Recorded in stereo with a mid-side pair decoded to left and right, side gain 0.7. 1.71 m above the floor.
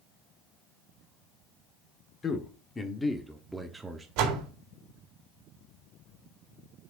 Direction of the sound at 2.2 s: 30° left.